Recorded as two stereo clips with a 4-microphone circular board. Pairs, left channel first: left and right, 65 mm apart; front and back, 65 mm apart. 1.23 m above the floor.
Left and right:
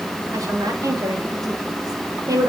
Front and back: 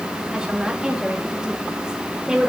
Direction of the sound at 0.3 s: 105° right.